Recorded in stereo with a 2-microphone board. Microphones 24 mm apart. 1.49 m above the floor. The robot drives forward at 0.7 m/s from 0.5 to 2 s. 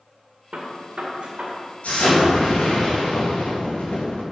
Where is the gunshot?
60° right (ahead or behind), 1.9 m; by 1.6 s 50° right (ahead or behind), 2 m.